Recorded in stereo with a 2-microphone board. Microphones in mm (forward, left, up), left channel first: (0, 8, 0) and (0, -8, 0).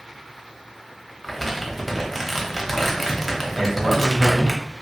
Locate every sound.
1.2 s crumpling: centre (ahead or behind), 0.7 m
3.5 s a man speaking: 30° right (ahead or behind), 1.6 m